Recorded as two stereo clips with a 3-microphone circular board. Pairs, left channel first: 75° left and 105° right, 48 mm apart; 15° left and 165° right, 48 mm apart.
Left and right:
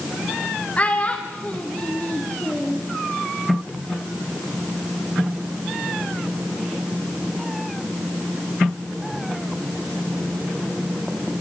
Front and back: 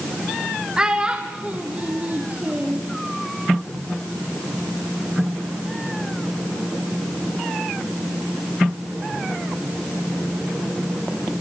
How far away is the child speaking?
About 1.3 m.